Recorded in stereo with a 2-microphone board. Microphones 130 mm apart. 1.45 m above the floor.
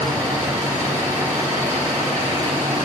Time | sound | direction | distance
0.0 | an engine running | 20° right (ahead or behind) | 5.5 m